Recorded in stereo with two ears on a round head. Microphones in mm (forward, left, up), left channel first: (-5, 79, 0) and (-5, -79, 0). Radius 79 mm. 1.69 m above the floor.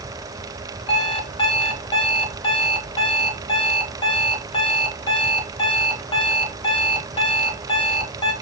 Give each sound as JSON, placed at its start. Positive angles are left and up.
{"t": 0.9, "sound": "an alarm clock", "side_deg": 30, "distance_m": 1.7}